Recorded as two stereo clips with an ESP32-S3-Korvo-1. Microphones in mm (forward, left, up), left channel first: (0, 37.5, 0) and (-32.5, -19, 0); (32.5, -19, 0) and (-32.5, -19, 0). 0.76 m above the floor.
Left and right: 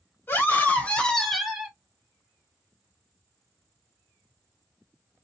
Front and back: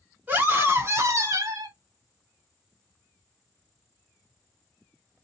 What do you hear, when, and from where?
0.3 s a scream: 115° left, 1.3 m; by 1.8 s 165° left, 0.9 m